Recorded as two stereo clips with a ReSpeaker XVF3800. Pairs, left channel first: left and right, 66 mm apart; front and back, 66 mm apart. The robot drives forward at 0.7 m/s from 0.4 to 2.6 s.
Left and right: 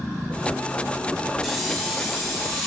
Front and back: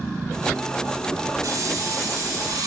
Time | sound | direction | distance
1.4 | a hiss | 175° left | 1.0 m